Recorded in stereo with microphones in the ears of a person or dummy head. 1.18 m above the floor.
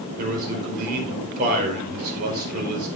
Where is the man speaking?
55° right (ahead or behind), 4.5 m.